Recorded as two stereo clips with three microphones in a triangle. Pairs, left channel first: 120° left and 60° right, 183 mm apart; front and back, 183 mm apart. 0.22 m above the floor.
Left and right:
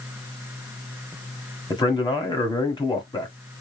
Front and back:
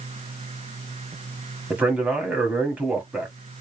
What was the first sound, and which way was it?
A man speaking, 105° left.